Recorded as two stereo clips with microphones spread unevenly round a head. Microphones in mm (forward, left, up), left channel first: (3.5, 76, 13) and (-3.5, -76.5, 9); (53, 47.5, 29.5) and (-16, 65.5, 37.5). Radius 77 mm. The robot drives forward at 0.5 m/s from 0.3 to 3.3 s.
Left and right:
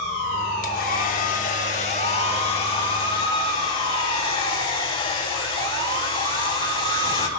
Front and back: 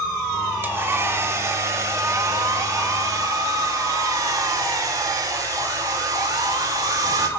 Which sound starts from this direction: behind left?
A hair dryer, at 0.6 s.